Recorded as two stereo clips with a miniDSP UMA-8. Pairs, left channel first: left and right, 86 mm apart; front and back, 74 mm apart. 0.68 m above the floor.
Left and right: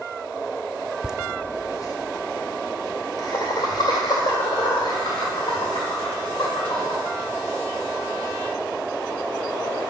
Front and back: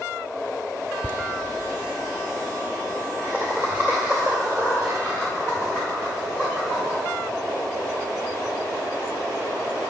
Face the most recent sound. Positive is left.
turn(degrees=120)